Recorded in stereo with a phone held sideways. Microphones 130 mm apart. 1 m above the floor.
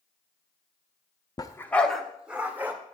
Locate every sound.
1.4 s a dog barking: 30° left (ahead or behind), 0.7 m; by 2.7 s 15° right (ahead or behind), 1.4 m